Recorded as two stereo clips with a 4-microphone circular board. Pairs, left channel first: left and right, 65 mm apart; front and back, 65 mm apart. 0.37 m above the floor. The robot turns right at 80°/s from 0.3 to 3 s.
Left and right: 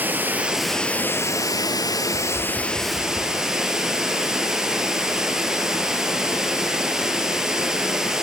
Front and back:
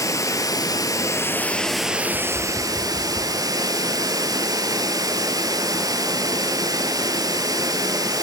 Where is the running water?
25° right, 0.7 m; by 8.2 s 170° right, 0.7 m.